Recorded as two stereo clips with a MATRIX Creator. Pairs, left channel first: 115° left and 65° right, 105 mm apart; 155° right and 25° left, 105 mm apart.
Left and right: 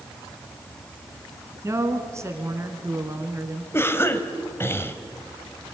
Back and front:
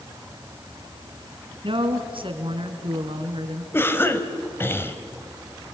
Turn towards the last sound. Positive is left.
turn(degrees=155)